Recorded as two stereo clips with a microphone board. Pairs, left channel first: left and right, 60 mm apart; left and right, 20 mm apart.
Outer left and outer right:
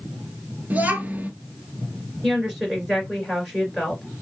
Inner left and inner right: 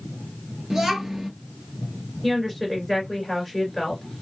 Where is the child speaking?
30° right (ahead or behind), 1.4 m.